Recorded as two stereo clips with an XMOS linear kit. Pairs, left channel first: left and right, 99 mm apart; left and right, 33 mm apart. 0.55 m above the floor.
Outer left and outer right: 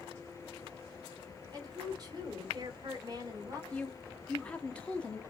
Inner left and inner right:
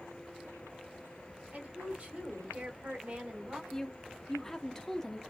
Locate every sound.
1.5 s a woman speaking: 40° right (ahead or behind), 1.6 m
3.7 s a woman speaking: 10° left (ahead or behind), 0.7 m